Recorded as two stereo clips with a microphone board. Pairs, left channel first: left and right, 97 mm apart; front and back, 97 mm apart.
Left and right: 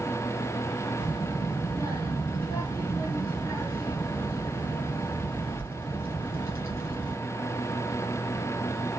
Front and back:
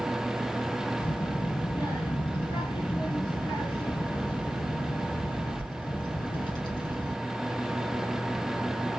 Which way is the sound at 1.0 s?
40° left.